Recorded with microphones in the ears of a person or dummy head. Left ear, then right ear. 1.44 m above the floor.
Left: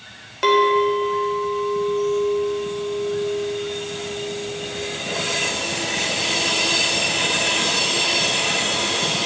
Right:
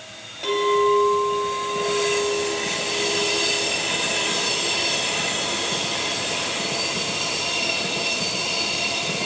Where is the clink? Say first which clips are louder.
Left 3 dB; 50° left (ahead or behind), 1.3 m.